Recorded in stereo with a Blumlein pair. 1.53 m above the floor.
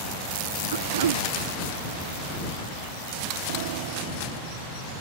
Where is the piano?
50° right.